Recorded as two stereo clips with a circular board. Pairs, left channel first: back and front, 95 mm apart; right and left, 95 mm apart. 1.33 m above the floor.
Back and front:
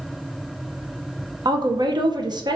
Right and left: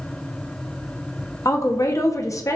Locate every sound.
1.4 s a woman speaking: 35° right, 0.7 m